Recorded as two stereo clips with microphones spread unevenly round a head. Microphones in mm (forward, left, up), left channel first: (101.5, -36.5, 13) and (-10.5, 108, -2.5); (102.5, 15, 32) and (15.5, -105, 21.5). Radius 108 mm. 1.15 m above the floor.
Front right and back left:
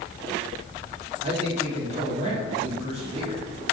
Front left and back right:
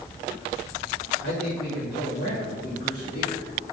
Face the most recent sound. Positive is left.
turn(degrees=75)